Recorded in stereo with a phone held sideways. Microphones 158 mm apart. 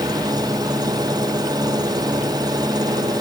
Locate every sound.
0.0 s an engine running: 25° right (ahead or behind)